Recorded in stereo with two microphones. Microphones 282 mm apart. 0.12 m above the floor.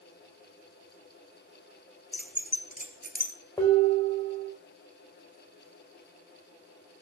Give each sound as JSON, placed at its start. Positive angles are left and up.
{"t": 2.1, "sound": "keys jangling", "side_deg": 30, "distance_m": 1.6}
{"t": 3.6, "sound": "dishes clattering", "side_deg": 15, "distance_m": 5.5}